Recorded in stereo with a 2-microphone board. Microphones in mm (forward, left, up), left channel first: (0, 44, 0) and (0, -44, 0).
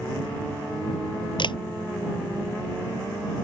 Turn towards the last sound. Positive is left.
turn(degrees=60)  # may be behind; listen again after turning